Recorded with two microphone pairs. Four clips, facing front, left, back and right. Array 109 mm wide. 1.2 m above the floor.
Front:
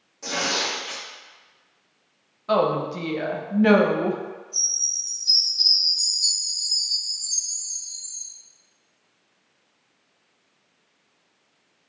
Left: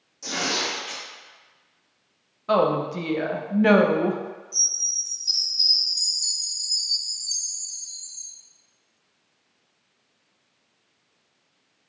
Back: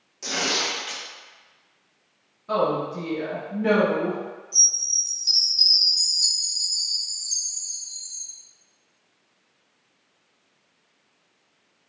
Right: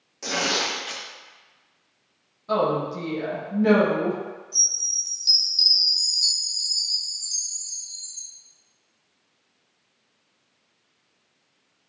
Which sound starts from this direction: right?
Tearing paper, at 0.2 s.